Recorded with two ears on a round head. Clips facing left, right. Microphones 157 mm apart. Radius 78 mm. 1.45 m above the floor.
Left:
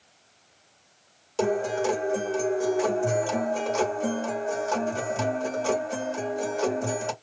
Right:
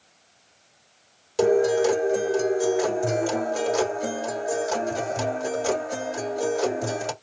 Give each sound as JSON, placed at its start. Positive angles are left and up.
{"t": 1.4, "sound": "a guitar", "side_deg": -15, "distance_m": 1.5}